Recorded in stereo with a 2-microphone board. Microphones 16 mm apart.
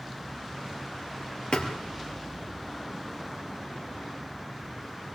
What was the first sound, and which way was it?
A thud, 80° left.